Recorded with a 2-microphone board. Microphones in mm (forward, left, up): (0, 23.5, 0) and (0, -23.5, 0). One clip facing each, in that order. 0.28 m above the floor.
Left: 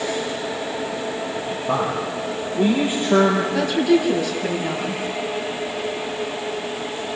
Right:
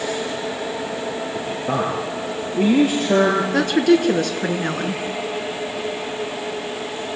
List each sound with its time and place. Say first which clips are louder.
1.4 s a man speaking: even; 65° right (ahead or behind), 4.5 m
3.5 s a woman speaking: right 2 dB; 65° right (ahead or behind), 4.5 m